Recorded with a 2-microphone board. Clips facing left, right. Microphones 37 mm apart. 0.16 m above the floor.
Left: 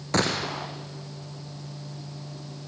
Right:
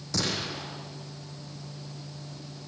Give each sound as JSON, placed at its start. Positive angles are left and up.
{"t": 0.1, "sound": "a gunshot", "side_deg": 50, "distance_m": 3.0}